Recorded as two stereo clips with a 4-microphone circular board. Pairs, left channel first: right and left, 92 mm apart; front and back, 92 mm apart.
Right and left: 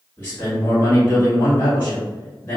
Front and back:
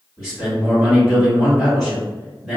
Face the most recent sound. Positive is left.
turn(degrees=-105)